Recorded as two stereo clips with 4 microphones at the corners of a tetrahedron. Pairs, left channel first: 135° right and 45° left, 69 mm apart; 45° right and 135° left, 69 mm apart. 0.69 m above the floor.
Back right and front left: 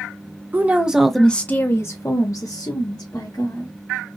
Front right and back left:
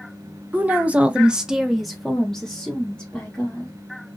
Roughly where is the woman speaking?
Left.